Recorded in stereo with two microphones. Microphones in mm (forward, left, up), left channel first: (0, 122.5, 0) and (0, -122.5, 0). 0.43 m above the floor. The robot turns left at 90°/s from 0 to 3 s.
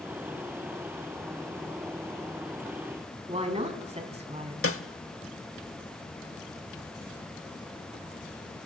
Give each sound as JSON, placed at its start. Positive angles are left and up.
{"t": 3.3, "sound": "a woman speaking", "side_deg": -25, "distance_m": 3.0}
{"t": 4.6, "sound": "a snare drum", "side_deg": 60, "distance_m": 0.8}